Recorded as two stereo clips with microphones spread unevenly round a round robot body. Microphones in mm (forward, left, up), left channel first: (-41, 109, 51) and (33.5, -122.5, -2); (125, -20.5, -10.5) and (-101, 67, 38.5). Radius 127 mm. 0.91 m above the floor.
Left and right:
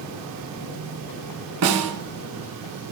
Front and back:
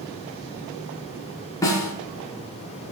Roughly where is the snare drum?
Right.